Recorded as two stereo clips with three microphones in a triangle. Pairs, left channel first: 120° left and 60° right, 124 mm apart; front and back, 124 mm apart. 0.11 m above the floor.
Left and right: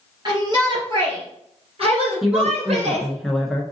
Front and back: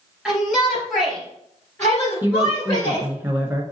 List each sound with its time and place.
0.2 s a shout: 85° right, 2 m; by 3.1 s 50° right, 3 m
2.2 s a woman speaking: 155° right, 1.1 m